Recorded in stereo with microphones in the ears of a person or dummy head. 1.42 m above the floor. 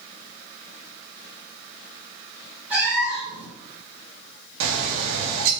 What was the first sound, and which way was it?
A cat meowing, 10° right (ahead or behind).